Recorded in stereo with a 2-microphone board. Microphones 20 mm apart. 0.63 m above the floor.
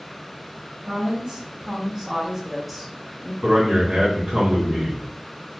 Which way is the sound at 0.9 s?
40° right (ahead or behind).